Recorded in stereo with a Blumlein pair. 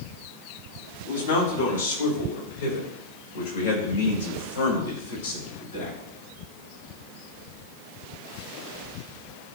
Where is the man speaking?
70° left, 2.5 m; by 6.0 s 65° left, 5 m.